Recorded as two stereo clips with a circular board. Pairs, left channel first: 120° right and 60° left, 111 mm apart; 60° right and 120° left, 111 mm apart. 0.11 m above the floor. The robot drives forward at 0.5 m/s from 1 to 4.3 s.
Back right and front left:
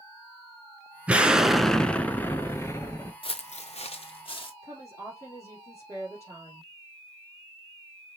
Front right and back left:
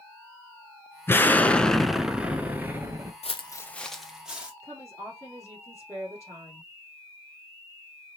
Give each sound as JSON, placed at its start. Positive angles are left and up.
{"t": 1.1, "sound": "an explosion", "azimuth_deg": -5, "distance_m": 0.6}
{"t": 3.2, "sound": "footsteps", "azimuth_deg": -80, "distance_m": 0.5}
{"t": 4.6, "sound": "a woman speaking", "azimuth_deg": 180, "distance_m": 2.5}